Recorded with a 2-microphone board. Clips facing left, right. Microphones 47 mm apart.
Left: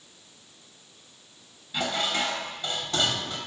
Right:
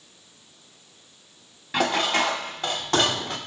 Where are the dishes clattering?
75° right (ahead or behind), 0.8 m.